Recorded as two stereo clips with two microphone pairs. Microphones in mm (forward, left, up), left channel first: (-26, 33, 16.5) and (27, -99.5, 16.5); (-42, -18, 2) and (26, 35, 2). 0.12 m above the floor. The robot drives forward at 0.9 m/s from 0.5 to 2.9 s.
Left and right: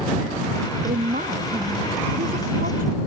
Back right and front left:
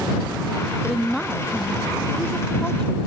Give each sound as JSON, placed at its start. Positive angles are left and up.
{"t": 0.8, "sound": "a woman speaking", "azimuth_deg": -50}